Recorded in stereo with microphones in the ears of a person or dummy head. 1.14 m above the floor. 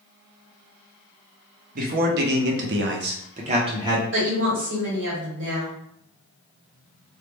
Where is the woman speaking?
70° right (ahead or behind), 1.8 m.